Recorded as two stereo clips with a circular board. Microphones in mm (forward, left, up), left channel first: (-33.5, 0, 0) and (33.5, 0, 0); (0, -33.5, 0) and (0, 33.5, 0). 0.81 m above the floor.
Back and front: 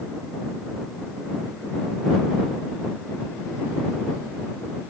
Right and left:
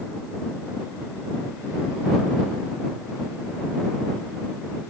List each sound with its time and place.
Only background noise.